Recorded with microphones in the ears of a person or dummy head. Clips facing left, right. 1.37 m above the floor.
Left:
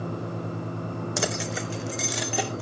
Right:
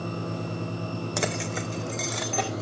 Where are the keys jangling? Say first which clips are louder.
Even; 5° left (ahead or behind), 0.6 m.